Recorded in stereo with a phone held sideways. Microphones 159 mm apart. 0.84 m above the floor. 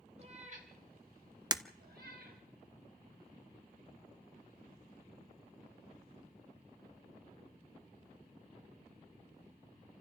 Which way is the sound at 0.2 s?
45° right (ahead or behind).